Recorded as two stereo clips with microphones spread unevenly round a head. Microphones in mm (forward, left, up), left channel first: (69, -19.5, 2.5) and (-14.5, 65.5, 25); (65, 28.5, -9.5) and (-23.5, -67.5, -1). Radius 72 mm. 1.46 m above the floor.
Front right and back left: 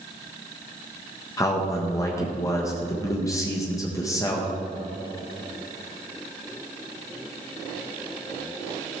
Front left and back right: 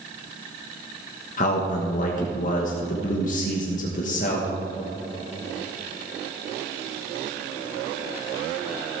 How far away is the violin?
I don't hear a violin.